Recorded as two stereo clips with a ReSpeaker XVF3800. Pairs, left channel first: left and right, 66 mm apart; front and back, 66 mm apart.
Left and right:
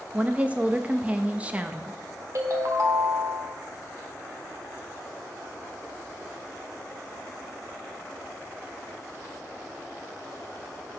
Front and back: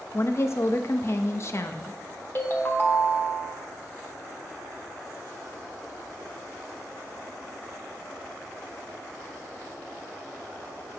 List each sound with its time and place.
0.1 s a woman speaking: 25° right, 0.6 m
2.4 s a ringtone: 55° right, 1.1 m